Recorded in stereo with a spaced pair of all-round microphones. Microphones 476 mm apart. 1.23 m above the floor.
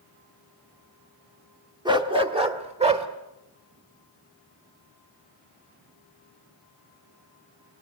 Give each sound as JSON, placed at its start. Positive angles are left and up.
{"t": 1.9, "sound": "a dog barking", "side_deg": -10, "distance_m": 1.3}